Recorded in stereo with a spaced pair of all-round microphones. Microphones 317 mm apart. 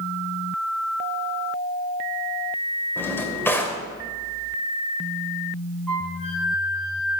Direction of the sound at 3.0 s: 5° left (ahead or behind).